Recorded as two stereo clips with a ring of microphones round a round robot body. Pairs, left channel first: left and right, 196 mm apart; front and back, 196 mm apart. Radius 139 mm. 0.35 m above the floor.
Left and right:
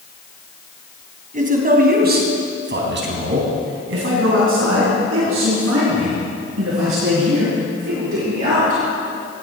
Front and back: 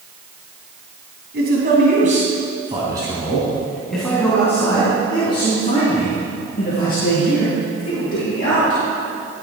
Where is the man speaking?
135° right, 2.5 m; by 8.8 s 55° right, 6 m.